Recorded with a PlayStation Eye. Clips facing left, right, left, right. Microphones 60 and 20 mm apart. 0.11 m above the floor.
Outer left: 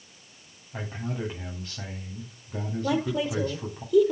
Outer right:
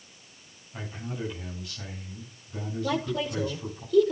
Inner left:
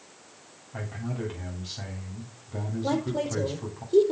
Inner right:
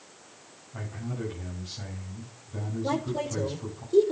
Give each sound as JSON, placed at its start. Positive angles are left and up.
{"t": 0.7, "sound": "a man speaking", "side_deg": 40, "distance_m": 9.5}
{"t": 2.8, "sound": "a woman speaking", "side_deg": 10, "distance_m": 3.0}